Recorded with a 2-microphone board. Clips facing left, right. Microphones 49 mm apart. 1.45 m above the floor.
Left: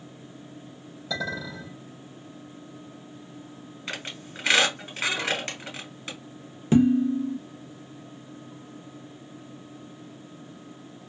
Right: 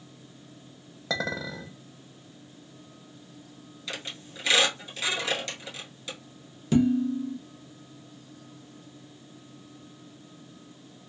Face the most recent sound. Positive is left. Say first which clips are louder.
# left 3 dB
turn(degrees=30)  # may be behind; listen again after turning